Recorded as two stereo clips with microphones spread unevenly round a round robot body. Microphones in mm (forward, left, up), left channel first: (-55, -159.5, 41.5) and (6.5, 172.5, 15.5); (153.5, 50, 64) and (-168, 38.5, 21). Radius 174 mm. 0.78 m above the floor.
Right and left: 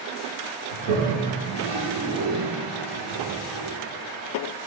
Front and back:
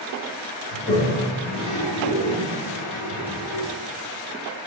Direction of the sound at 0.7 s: 70° left.